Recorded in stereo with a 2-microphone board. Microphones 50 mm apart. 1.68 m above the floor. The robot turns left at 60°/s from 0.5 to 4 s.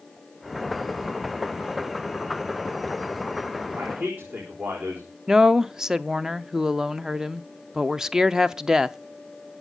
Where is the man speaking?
60° right (ahead or behind), 4.5 m; by 5.1 s 45° right (ahead or behind), 4.5 m.